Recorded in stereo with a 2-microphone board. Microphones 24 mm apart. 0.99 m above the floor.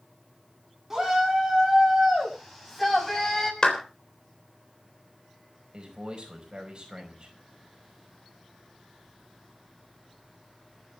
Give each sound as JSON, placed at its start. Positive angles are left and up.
{"t": 0.9, "sound": "a shout", "side_deg": -15, "distance_m": 8.5}
{"t": 3.6, "sound": "a clap", "side_deg": 30, "distance_m": 3.5}
{"t": 5.7, "sound": "a man speaking", "side_deg": -35, "distance_m": 5.0}